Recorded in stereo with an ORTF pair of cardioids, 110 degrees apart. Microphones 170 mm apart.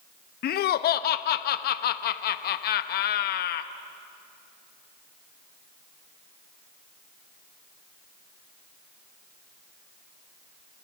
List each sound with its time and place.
0.4 s laughter: 60° left, 0.9 m